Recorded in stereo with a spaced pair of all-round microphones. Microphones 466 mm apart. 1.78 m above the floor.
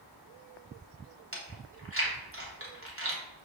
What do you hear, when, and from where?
1.3 s chewing: 25° right (ahead or behind), 1.2 m